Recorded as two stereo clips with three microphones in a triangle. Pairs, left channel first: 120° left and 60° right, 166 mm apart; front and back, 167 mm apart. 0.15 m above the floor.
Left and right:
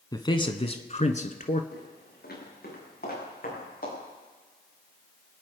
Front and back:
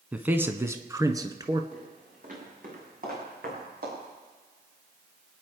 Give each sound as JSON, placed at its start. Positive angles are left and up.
{"t": 0.1, "sound": "a man speaking", "azimuth_deg": 110, "distance_m": 1.2}
{"t": 1.7, "sound": "footsteps", "azimuth_deg": 135, "distance_m": 8.5}